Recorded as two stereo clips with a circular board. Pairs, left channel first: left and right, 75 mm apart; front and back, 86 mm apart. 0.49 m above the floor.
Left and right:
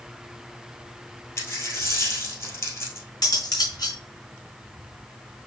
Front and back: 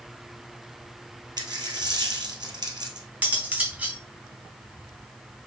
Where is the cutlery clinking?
110° left, 1.4 m.